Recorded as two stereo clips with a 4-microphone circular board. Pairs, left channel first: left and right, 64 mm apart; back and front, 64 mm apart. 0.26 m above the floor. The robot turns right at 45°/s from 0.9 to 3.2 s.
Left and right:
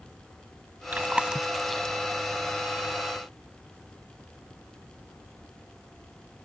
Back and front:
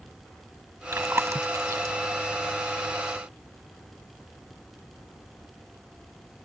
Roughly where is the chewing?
Ahead right.